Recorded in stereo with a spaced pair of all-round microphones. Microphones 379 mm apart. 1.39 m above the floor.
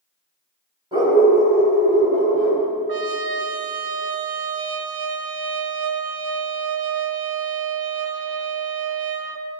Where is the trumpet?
75° right (ahead or behind), 0.6 m.